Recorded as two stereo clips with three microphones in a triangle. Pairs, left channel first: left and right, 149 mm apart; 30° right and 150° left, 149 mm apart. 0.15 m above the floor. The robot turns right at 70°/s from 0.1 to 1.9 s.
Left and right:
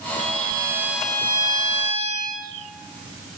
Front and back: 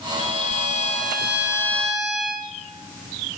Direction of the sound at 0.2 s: 60° right.